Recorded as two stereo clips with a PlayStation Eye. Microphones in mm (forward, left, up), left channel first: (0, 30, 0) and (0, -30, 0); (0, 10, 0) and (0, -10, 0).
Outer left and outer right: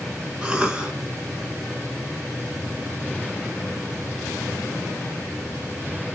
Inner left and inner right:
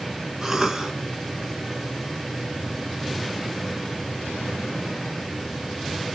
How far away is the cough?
About 1.4 m.